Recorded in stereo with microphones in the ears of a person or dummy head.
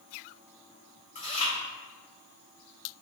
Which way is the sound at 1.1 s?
35° left (ahead or behind).